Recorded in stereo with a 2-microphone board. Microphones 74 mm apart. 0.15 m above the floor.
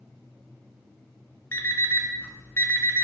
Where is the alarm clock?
35° left (ahead or behind), 0.6 m.